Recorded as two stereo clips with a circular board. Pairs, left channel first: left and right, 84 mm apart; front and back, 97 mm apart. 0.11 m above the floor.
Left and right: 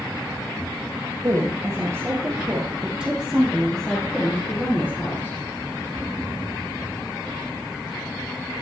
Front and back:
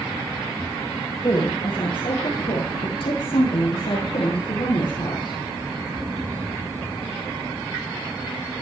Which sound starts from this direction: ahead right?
A woman speaking, at 1.2 s.